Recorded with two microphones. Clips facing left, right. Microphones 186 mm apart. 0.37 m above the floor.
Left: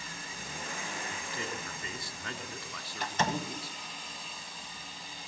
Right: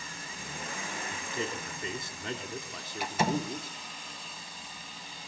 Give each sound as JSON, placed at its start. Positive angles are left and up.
{"t": 1.1, "sound": "a man speaking", "side_deg": -20, "distance_m": 3.5}
{"t": 3.0, "sound": "a door slam", "side_deg": -10, "distance_m": 1.4}